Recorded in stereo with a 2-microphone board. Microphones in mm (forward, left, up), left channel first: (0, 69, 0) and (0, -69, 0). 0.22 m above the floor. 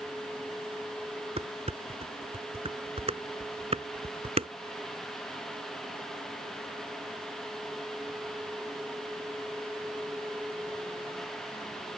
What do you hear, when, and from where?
1.4 s dishes clattering: 50° right (ahead or behind)